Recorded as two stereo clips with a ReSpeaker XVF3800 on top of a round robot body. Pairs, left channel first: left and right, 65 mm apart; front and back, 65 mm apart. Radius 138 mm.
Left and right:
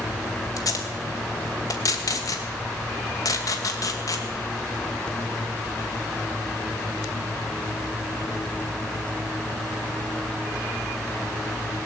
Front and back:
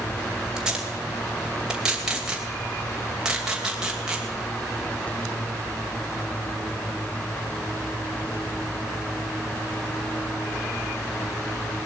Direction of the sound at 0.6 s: 105° left.